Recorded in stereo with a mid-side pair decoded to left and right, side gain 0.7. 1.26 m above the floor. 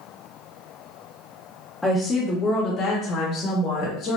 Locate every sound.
1.8 s a woman speaking: 10° left, 0.8 m; by 4.2 s 60° left, 1.8 m